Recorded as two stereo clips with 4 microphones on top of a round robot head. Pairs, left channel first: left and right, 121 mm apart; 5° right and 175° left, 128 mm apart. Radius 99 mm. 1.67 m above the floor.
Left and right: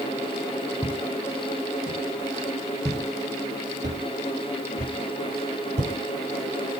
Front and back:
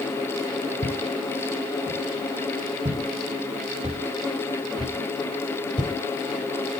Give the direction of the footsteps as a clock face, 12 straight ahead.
5 o'clock.